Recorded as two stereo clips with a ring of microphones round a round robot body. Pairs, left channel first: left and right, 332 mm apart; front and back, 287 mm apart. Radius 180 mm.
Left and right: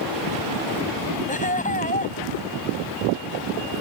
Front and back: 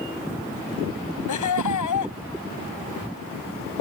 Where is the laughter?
20° left.